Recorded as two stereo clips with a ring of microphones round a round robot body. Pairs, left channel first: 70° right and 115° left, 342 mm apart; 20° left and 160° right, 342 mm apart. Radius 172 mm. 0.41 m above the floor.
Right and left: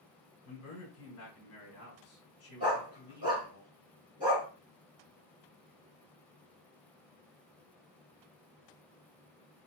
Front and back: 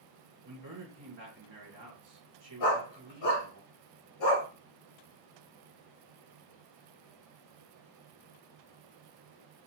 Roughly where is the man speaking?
Right.